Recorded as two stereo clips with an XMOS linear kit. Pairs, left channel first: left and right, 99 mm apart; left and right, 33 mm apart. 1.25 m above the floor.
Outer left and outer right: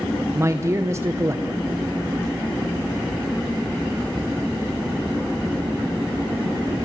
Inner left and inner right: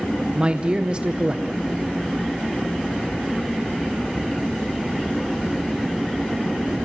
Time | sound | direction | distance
0.3 | a man speaking | 30° right (ahead or behind) | 1.0 m